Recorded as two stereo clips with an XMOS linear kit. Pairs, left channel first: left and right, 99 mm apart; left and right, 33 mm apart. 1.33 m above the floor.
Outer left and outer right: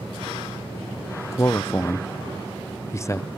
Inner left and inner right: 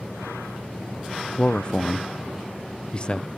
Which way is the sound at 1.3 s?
30° left (ahead or behind).